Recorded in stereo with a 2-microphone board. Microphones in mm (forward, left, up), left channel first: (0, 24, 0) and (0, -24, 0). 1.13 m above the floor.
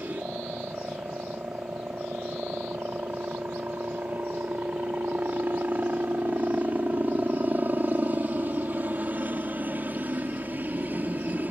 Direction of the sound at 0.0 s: 40° right (ahead or behind).